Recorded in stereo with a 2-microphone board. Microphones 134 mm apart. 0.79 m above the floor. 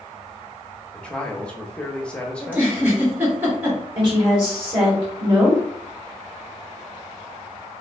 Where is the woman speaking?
20° right (ahead or behind), 1.9 m.